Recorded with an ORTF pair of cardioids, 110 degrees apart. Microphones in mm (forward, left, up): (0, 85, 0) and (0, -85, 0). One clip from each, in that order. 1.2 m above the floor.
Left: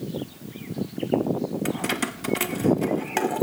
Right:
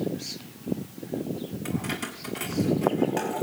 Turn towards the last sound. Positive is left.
turn(degrees=55)